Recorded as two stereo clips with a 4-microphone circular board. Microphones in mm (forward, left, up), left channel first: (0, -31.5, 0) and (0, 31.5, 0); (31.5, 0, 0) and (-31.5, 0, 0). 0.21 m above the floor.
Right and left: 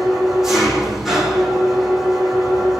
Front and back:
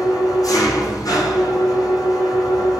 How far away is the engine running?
About 9 m.